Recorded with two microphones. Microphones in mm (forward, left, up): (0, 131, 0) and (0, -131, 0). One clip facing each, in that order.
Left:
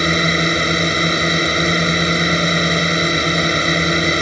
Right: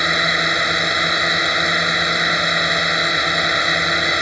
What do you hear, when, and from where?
0.0 s a drone: 30° left (ahead or behind)